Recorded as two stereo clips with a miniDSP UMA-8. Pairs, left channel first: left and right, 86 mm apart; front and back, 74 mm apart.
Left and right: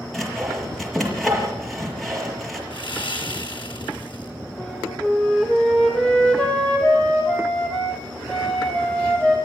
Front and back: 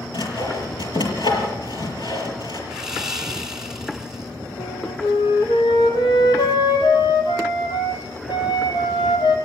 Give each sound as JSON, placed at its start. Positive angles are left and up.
{"t": 0.1, "sound": "sawing", "azimuth_deg": 0, "distance_m": 5.0}
{"t": 2.7, "sound": "sawing", "azimuth_deg": 100, "distance_m": 2.0}
{"t": 4.6, "sound": "a flute", "azimuth_deg": 10, "distance_m": 3.5}